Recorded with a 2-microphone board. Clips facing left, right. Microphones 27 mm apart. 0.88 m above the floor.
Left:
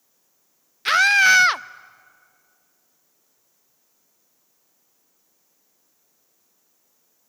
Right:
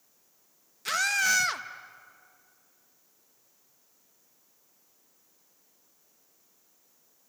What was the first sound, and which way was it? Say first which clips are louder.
A scream: left 11 dB; 55° left (ahead or behind).